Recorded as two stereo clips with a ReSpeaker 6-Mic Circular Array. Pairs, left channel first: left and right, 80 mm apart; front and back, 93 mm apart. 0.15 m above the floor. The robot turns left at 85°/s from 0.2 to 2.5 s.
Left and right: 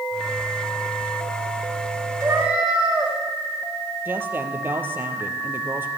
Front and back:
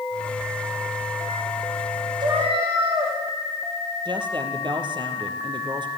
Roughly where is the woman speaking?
Behind right.